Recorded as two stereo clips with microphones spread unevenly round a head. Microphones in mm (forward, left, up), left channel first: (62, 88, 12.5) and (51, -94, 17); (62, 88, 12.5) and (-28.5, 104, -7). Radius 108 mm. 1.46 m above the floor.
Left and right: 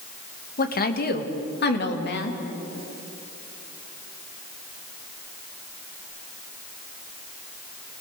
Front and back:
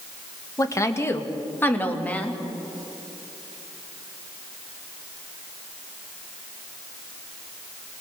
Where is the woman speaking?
45° left, 2 m; by 2.4 s 65° left, 3.5 m.